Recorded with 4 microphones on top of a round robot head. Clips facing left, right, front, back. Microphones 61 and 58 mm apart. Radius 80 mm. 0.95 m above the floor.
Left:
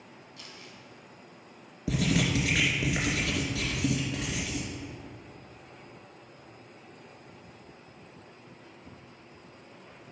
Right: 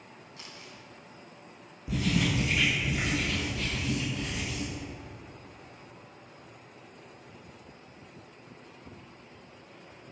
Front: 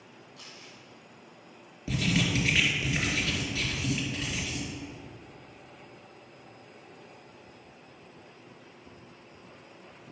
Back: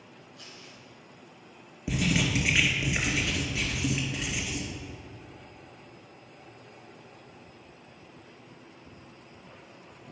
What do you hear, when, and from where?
0.4 s crumpling: 30° right, 2 m
1.9 s writing: 105° left, 2 m